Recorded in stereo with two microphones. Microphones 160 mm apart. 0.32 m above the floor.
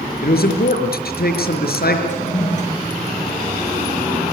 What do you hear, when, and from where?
0.2 s a man speaking: 75° left (ahead or behind), 4.5 m
2.1 s a toilet flushing: 50° left (ahead or behind), 6.5 m